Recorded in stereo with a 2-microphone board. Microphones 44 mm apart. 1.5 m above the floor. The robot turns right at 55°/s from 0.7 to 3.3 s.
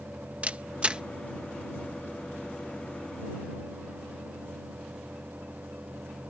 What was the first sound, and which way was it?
A camera shutter, 30° right (ahead or behind).